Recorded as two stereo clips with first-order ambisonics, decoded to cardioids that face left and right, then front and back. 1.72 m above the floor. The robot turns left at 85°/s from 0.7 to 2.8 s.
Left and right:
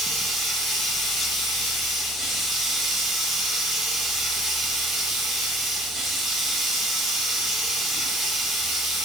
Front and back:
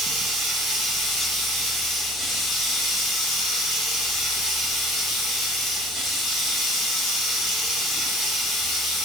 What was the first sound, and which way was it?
Running water, straight behind.